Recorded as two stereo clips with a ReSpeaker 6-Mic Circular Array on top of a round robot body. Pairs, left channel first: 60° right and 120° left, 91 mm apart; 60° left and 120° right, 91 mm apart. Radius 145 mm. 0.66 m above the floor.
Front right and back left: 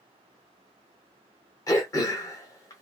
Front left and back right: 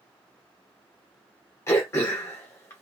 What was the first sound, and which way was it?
Throat clearing, 5° right.